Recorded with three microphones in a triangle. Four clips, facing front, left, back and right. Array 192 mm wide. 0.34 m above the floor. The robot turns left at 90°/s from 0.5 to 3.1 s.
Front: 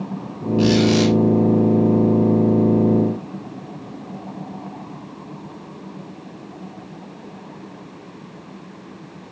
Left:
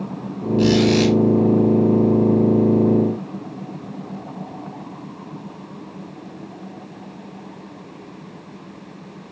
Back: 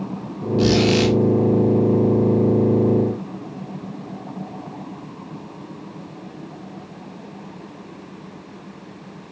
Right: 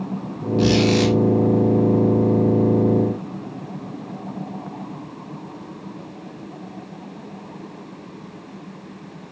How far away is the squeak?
About 4.5 m.